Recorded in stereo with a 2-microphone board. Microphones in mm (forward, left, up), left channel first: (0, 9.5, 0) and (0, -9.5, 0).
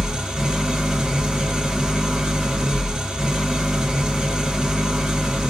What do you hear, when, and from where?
0.0 s an engine running: 65° right (ahead or behind), 2.5 m